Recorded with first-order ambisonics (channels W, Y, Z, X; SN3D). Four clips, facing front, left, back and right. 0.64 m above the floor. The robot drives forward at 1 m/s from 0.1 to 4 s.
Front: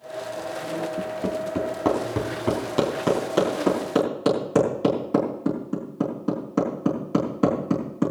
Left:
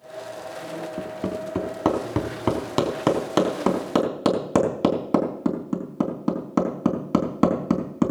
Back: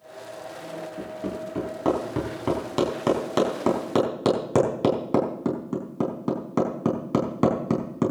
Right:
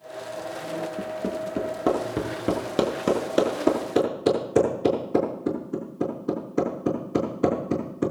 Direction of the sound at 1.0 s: 65° left.